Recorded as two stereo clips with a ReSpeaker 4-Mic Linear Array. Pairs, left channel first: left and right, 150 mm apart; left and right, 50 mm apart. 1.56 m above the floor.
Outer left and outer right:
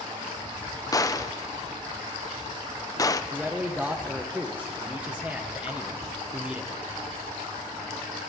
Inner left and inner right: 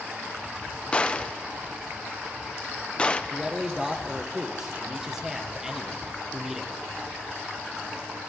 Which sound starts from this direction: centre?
A man speaking, at 3.3 s.